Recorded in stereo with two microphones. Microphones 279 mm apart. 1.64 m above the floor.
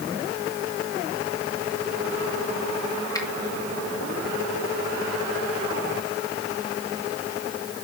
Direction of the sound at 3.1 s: 10° left (ahead or behind).